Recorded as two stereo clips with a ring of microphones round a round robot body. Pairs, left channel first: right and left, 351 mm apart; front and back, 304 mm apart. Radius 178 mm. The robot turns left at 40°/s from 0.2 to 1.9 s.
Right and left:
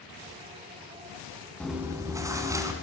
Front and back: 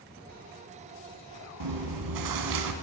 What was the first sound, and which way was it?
Chewing, 175° right.